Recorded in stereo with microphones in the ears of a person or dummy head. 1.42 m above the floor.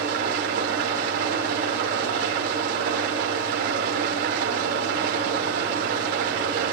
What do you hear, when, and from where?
0.0 s an engine running: 50° right (ahead or behind), 4.5 m